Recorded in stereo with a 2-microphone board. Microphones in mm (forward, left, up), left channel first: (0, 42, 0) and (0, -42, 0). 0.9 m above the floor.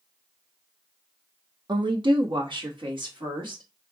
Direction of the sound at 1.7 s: 60° right (ahead or behind).